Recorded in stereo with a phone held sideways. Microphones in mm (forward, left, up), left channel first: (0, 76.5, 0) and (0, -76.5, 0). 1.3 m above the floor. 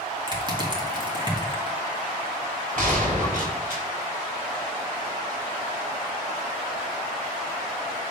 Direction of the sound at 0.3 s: 30° right (ahead or behind).